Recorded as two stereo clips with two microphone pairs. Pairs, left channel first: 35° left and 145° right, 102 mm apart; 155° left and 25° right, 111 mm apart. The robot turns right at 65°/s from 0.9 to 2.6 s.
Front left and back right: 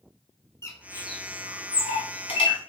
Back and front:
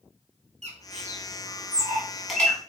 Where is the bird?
30° right, 0.7 m; by 2.6 s 80° left, 0.7 m.